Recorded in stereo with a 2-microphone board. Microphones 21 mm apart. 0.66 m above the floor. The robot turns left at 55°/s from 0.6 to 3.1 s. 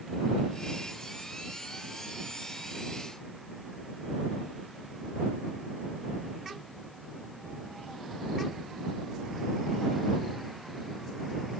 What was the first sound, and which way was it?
Only background noise.